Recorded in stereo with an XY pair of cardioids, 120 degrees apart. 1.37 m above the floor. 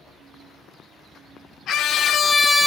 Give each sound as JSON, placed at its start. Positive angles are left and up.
{"t": 1.7, "sound": "a scream", "azimuth_deg": 60, "distance_m": 1.2}